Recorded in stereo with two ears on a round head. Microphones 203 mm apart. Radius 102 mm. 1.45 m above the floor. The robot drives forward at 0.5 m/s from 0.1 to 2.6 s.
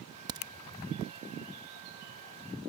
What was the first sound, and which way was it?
A crack, 15° right (ahead or behind).